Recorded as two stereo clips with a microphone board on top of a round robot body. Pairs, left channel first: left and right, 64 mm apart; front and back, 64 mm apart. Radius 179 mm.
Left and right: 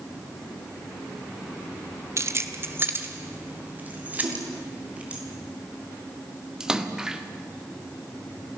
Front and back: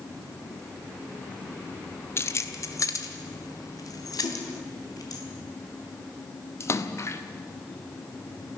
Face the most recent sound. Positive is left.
turn(degrees=-15)